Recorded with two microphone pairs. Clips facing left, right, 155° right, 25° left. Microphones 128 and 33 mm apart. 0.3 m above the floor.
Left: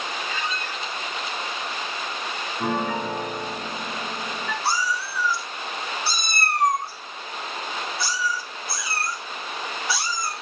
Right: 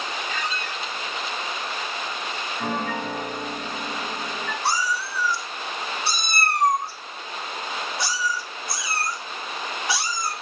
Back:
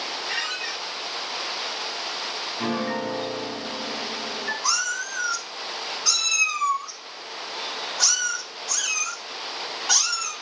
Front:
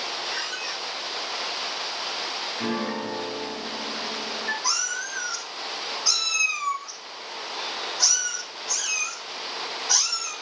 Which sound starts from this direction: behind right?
A squeak, at 0.3 s.